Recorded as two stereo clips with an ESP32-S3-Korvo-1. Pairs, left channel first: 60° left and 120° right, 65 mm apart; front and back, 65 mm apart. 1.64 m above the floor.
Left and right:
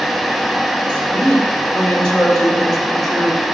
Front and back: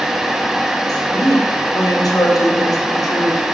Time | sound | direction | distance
0.9 | a woman speaking | 5° right | 4 m